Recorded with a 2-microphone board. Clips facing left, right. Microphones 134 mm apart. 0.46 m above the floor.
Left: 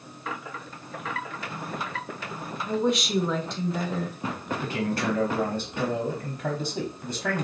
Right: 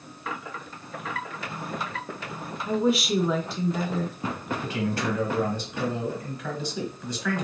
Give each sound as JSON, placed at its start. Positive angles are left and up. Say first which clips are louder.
{"t": 2.7, "sound": "a woman speaking", "louder": "right 2 dB", "side_deg": -5, "distance_m": 1.1}
{"t": 4.6, "sound": "a man speaking", "louder": "left 1 dB", "side_deg": 35, "distance_m": 1.1}